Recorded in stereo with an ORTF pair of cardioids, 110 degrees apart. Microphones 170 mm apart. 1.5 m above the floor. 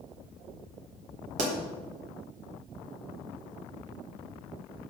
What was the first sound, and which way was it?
A pop, 50° right.